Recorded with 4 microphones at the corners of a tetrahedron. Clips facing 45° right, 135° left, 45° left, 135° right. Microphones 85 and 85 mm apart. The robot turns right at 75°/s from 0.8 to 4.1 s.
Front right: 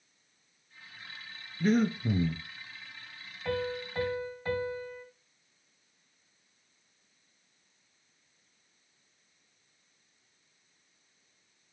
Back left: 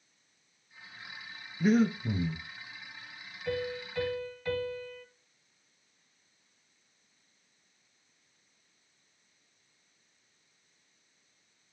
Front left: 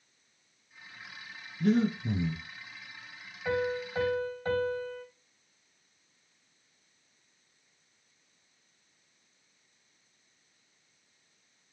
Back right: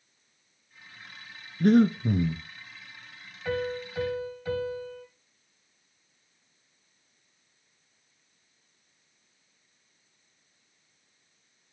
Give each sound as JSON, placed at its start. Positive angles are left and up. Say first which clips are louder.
{"t": 1.6, "sound": "breathing", "louder": "back left 1 dB, back right 6 dB", "azimuth_deg": -150, "distance_m": 0.9}
{"t": 3.5, "sound": "a piano", "louder": "front right 1 dB, even", "azimuth_deg": -35, "distance_m": 3.0}